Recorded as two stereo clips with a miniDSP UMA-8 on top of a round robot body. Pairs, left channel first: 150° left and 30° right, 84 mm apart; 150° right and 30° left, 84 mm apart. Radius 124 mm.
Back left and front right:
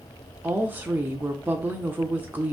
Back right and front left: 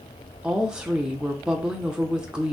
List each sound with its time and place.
0.4 s a woman speaking: 35° right, 0.9 m